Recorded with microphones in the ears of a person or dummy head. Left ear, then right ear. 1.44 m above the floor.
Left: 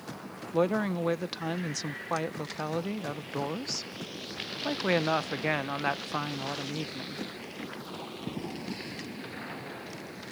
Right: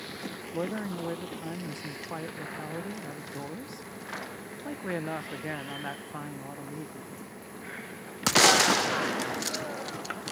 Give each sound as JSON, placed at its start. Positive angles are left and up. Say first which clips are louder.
{"t": 0.5, "sound": "a woman speaking", "louder": "left 7 dB", "side_deg": 50}